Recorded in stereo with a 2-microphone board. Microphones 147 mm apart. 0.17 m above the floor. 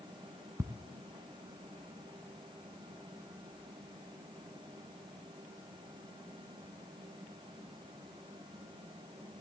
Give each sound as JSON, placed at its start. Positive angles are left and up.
{"t": 0.6, "sound": "ticking", "side_deg": -20, "distance_m": 0.5}